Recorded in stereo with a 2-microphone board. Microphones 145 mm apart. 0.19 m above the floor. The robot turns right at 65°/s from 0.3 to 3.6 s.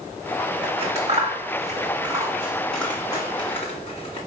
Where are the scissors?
35° right (ahead or behind), 1.7 m; by 4.2 s 45° left (ahead or behind), 1.7 m.